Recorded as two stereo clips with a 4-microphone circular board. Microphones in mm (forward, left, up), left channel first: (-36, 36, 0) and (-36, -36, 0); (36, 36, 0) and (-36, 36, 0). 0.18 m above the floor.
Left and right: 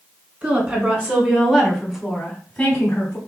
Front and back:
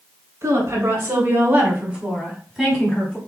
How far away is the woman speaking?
About 2 m.